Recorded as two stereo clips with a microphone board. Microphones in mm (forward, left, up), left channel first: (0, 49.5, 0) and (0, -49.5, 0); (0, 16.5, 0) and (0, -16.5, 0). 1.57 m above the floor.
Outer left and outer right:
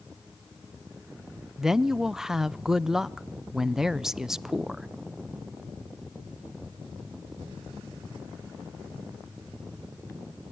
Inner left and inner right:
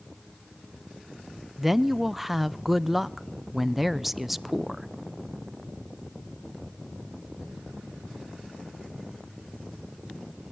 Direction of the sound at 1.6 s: 5° right (ahead or behind).